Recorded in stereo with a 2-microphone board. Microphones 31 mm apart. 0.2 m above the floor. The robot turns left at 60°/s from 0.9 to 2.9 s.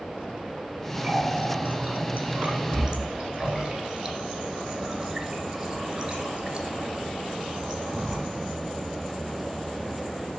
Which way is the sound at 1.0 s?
25° right (ahead or behind).